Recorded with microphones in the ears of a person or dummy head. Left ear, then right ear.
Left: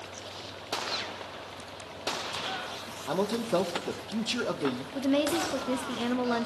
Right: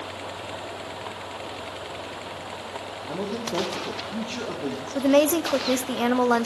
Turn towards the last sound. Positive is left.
turn(degrees=-35)  # may be behind; listen again after turning